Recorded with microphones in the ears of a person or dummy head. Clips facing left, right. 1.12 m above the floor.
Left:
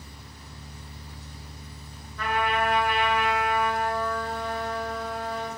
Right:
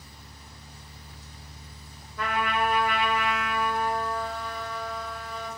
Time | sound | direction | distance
2.2 | a trumpet | 70° right (ahead or behind) | 1.9 m